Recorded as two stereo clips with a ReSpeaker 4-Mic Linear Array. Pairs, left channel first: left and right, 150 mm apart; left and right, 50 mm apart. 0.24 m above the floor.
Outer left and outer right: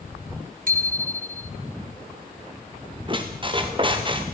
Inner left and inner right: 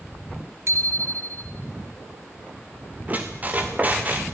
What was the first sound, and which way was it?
A bicycle bell, 65° right (ahead or behind).